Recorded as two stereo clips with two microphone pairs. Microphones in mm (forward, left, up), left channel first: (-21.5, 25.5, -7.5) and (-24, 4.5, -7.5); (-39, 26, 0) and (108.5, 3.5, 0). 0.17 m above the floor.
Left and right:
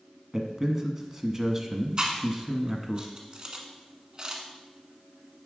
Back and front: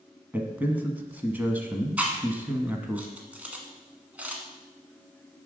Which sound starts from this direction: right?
Chewing, at 2.0 s.